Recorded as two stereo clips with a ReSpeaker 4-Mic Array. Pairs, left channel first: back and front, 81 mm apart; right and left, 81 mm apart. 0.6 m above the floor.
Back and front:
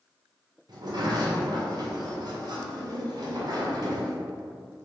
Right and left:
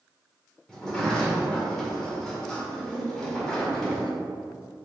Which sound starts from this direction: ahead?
A sliding door, at 0.7 s.